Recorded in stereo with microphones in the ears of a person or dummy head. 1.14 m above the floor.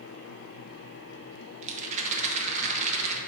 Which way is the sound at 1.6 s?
40° right (ahead or behind).